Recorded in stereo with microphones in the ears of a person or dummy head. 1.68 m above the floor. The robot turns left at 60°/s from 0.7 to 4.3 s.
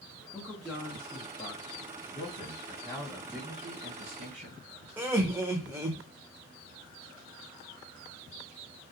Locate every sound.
0.3 s a man speaking: 175° right, 0.7 m; by 1.9 s 110° left, 0.7 m
2.1 s a man speaking: 65° left, 1.4 m; by 4.6 s 65° right, 1.4 m
5.0 s laughter: 15° right (ahead or behind), 0.7 m